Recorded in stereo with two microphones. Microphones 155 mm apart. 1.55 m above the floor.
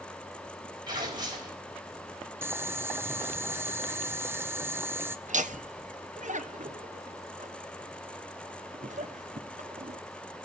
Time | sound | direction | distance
0.9 | tearing paper | 30° right (ahead or behind) | 4 m
2.4 | boiling | 15° right (ahead or behind) | 0.7 m
5.3 | laughter | 55° right (ahead or behind) | 1.2 m